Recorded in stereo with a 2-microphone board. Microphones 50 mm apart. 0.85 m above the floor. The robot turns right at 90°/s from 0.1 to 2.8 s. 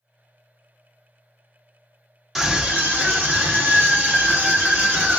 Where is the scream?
Straight behind, 1.5 m; by 5.2 s 140° right, 1.5 m.